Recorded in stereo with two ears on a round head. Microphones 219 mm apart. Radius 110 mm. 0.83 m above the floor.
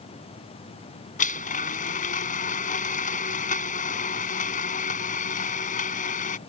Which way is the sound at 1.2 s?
35° left (ahead or behind).